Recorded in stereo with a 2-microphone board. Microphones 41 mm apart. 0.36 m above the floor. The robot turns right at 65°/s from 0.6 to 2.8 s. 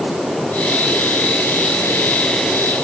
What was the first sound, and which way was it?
Only background noise.